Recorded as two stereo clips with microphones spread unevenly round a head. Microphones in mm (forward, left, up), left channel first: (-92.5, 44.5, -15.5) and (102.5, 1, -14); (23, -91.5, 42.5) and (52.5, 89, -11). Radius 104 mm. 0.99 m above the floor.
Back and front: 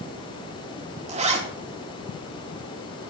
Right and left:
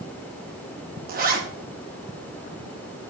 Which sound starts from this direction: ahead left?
A zipper, at 1.1 s.